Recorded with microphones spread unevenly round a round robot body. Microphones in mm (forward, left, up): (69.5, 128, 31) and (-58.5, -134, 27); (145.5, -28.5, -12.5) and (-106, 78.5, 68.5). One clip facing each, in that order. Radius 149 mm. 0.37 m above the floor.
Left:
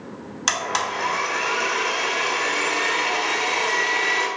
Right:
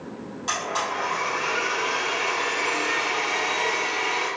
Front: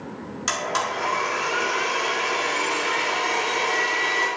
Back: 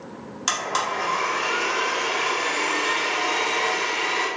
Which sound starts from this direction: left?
A blender, at 0.5 s.